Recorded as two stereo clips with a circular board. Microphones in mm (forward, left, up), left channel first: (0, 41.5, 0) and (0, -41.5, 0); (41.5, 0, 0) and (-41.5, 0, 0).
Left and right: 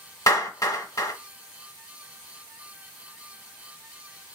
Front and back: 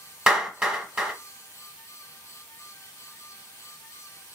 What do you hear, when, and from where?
0.3 s a clap: 110° left, 1.2 m